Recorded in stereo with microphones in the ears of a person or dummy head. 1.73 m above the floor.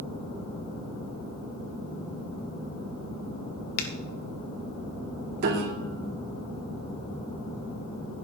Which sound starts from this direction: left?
A finger snap, at 3.8 s.